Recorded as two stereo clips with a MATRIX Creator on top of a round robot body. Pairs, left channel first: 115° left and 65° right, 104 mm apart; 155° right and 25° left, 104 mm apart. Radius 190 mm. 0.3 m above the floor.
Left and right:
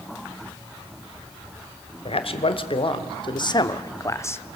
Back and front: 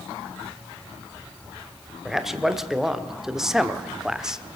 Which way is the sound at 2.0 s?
110° left.